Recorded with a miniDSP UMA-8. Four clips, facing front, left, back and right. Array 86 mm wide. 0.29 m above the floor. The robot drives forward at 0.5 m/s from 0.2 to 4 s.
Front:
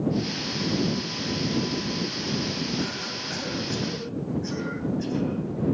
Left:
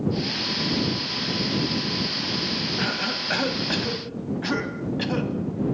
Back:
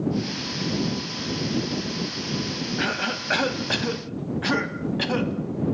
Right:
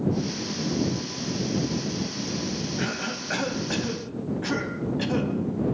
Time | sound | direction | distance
2.8 | a cough | 160° left | 2.0 m